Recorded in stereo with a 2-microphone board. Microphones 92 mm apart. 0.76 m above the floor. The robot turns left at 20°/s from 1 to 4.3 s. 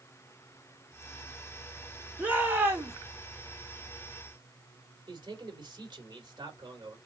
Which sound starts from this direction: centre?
A shout, at 2.2 s.